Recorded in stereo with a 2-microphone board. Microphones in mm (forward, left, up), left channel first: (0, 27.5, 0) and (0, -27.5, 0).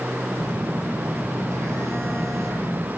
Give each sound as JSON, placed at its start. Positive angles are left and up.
{"t": 0.4, "sound": "a phone buzzing", "side_deg": -70, "distance_m": 5.0}